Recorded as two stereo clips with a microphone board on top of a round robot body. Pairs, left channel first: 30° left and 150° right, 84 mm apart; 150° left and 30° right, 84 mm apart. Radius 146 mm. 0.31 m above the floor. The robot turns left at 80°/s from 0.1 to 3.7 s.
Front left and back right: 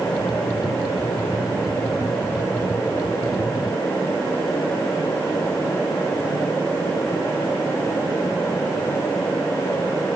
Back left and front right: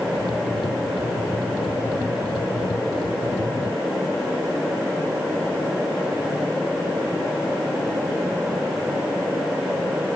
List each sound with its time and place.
Only background noise.